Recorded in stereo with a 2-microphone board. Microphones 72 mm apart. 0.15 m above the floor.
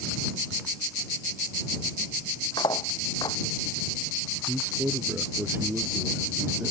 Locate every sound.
2.6 s cutlery clinking: 80° left
4.5 s a man speaking: 30° right (ahead or behind)